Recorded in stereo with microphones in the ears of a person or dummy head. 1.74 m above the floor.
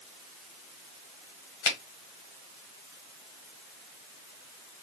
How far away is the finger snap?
About 1.0 m.